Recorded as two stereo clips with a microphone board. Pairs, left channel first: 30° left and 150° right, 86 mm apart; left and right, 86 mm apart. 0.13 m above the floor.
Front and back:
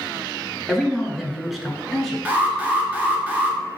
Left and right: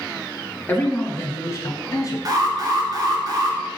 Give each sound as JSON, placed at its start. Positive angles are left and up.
{"t": 0.7, "sound": "a man speaking", "azimuth_deg": 125, "distance_m": 1.2}
{"t": 2.2, "sound": "an alarm", "azimuth_deg": -85, "distance_m": 1.4}